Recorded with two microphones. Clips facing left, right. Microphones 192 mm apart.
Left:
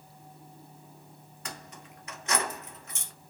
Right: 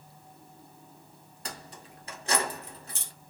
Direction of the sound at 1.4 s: 35° right (ahead or behind).